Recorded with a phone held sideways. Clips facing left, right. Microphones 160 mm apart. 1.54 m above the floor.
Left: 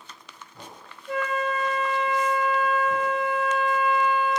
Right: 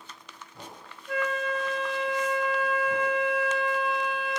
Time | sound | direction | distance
1.1 | a flute | 25° left (ahead or behind) | 3 m